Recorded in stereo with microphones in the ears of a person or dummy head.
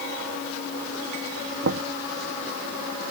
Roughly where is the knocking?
Right.